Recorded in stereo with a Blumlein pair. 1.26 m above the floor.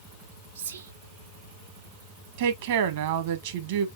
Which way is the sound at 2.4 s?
55° right.